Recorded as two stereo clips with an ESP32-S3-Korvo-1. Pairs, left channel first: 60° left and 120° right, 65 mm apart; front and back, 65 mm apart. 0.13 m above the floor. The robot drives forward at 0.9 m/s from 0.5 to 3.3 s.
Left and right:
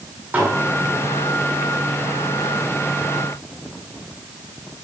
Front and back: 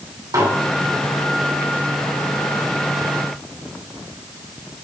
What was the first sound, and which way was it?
Dishes clattering, 175° left.